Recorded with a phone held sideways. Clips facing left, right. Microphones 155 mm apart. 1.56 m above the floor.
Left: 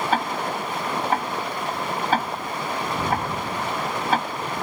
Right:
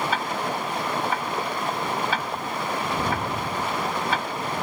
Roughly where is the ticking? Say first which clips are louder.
Left 2 dB; left.